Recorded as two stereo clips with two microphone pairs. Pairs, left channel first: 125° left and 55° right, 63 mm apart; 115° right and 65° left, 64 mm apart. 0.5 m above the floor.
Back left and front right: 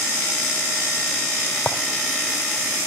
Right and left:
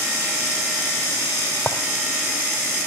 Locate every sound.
1.7 s a clink: 175° right, 1.8 m